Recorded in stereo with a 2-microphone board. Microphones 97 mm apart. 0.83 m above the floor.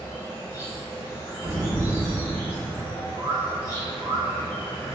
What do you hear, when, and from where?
0.0 s an insect: 25° left (ahead or behind), 0.8 m
1.4 s an explosion: 55° right (ahead or behind), 1.5 m
3.2 s a bird: 65° right (ahead or behind), 1.6 m